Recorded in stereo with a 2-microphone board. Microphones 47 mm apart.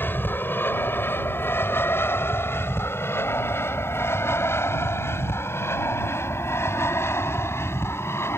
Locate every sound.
0.0 s an aircraft: 50° left (ahead or behind); by 8.4 s 75° left (ahead or behind)